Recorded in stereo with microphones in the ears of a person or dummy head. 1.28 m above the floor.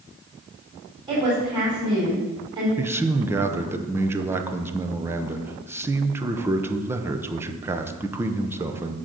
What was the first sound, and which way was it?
A woman speaking, 30° right (ahead or behind).